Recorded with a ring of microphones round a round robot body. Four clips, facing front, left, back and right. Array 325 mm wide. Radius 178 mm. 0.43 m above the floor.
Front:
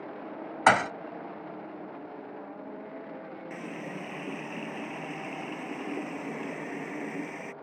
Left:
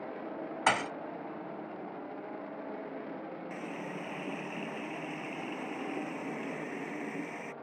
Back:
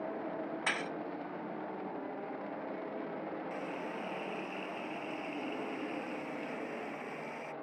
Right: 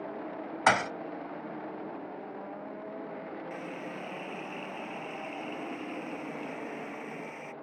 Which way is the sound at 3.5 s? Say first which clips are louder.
Right 1 dB, front 1 dB; 25° left.